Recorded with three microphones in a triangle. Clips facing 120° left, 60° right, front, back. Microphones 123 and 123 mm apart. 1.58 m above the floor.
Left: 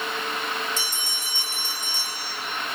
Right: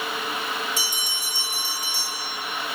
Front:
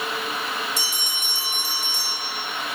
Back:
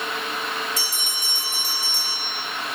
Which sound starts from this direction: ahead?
A bell, at 0.8 s.